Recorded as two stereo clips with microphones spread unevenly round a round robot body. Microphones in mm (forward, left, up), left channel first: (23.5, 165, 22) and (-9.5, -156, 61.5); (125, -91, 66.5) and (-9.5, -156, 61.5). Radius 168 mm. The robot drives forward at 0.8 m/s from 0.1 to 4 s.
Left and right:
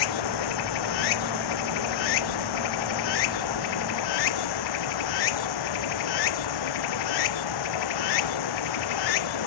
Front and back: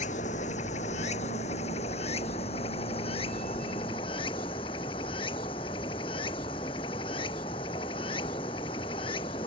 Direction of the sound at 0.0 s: 90° left.